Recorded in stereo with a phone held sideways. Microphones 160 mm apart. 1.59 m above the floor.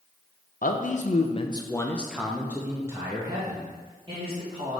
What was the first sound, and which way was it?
A man speaking, 60° left (ahead or behind).